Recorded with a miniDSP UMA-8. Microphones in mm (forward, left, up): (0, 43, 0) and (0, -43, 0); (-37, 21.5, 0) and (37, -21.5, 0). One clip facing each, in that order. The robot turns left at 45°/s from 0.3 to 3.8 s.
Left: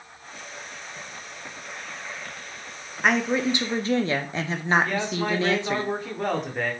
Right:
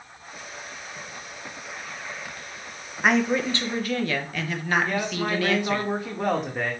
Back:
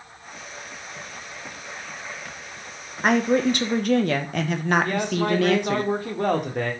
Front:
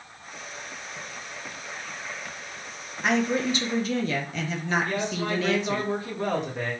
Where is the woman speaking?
175° right, 0.6 m; by 5.8 s 150° left, 0.6 m.